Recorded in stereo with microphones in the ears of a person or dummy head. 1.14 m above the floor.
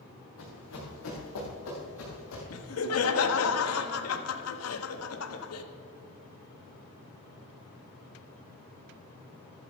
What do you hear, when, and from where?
0.4 s running footsteps: 80° left, 6 m
2.5 s laughter: 85° left, 1.5 m